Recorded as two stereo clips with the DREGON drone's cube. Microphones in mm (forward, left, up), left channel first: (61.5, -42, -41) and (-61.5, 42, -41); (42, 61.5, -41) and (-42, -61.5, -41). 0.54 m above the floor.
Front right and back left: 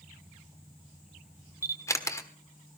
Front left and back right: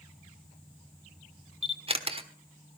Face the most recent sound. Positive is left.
turn(degrees=-100)